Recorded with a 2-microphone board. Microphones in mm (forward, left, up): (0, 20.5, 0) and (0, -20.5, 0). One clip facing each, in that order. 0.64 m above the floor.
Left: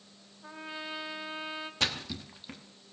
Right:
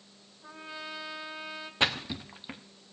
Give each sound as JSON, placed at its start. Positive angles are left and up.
{"t": 0.4, "sound": "a trumpet", "side_deg": 20, "distance_m": 1.6}
{"t": 1.8, "sound": "a splash", "side_deg": -20, "distance_m": 1.0}